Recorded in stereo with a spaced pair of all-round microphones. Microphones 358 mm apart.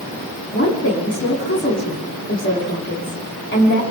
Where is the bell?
I don't hear a bell.